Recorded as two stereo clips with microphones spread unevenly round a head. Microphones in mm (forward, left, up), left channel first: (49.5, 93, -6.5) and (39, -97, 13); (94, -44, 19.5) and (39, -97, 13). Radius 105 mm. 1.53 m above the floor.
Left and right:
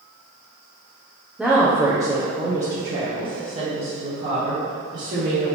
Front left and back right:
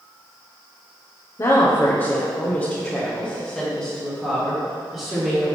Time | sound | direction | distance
1.4 | a woman speaking | 5° right | 1.0 m